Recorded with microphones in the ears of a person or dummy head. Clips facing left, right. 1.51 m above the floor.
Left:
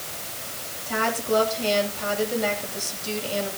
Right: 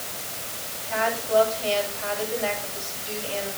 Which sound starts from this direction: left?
A woman speaking, at 0.9 s.